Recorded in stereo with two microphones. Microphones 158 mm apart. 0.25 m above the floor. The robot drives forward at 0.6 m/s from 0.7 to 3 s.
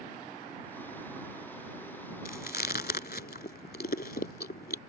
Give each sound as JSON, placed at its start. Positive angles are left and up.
{"t": 2.2, "sound": "chewing", "side_deg": 65}